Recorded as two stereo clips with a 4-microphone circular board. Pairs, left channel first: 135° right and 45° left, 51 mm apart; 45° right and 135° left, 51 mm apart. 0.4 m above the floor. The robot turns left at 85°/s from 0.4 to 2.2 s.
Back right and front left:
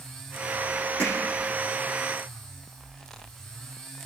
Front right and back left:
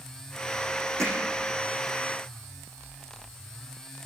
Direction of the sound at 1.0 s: 165° left.